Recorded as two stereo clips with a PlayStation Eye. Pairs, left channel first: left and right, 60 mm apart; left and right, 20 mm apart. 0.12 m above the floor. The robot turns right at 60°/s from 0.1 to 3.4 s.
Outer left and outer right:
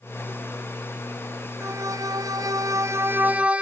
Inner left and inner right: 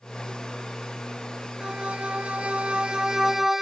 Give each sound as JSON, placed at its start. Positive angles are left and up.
{"t": 1.6, "sound": "a violin", "azimuth_deg": -130}